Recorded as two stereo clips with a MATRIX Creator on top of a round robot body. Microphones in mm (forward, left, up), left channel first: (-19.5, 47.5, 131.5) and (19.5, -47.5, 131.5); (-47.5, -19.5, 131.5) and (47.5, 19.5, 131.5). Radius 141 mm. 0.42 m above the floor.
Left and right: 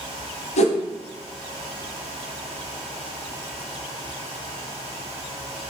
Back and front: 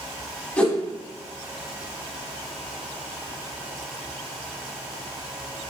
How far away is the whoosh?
About 0.9 m.